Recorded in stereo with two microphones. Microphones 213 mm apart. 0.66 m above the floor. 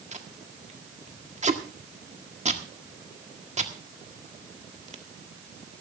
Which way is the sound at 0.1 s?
35° right (ahead or behind).